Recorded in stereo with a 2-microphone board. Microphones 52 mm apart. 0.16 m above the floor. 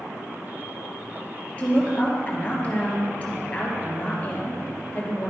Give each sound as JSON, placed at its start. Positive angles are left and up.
{"t": 1.6, "sound": "a woman speaking", "side_deg": 25, "distance_m": 2.5}